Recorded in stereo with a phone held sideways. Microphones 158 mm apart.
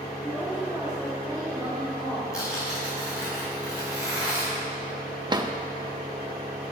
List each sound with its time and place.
0.2 s a woman speaking: 15° left (ahead or behind), 3 m; by 2.2 s 30° left (ahead or behind), 3.5 m
2.3 s tearing paper: 20° left (ahead or behind), 4 m
5.3 s a drawer: 25° right (ahead or behind), 0.6 m